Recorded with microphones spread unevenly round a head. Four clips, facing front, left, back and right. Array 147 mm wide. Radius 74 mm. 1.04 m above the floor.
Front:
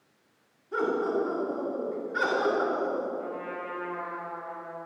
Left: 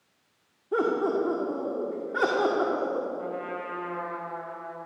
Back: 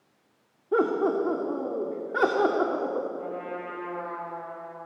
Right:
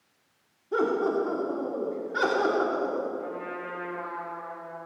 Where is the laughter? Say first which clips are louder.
Even, back 4 dB; 170° left, 2.5 m.